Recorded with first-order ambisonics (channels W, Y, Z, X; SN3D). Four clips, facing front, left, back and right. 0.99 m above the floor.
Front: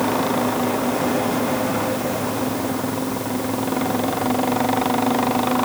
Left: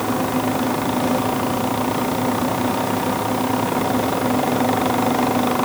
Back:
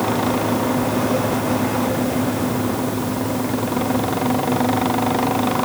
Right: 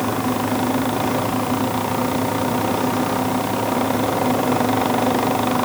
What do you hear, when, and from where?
Only background noise.